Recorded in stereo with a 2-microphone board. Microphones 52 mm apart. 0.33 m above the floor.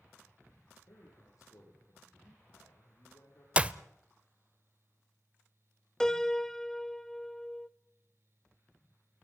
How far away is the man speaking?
About 9.5 m.